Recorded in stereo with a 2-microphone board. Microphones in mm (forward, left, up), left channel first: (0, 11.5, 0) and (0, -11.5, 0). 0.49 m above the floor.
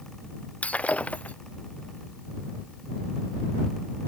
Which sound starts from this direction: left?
Breaking glass, at 0.6 s.